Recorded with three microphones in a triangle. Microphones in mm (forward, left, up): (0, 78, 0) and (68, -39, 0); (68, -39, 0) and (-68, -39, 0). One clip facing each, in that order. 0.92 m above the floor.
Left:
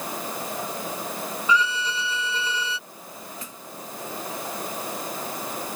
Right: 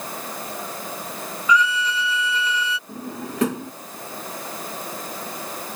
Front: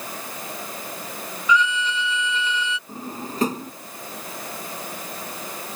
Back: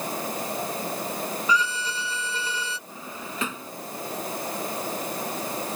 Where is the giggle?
I don't hear a giggle.